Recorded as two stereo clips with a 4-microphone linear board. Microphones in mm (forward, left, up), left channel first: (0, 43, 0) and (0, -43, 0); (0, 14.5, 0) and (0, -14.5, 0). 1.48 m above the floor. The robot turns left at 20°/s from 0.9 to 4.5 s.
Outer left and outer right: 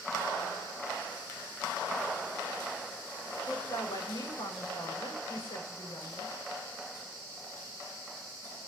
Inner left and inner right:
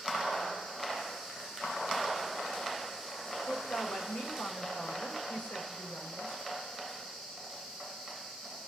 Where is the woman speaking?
45° left (ahead or behind), 8 m; by 6.3 s 65° left (ahead or behind), 8 m.